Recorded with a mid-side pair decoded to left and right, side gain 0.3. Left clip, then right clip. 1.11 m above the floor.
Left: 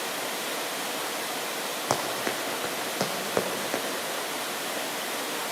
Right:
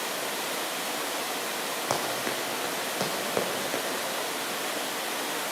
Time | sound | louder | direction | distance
1.9 | running footsteps | left 2 dB | 35° left | 4 m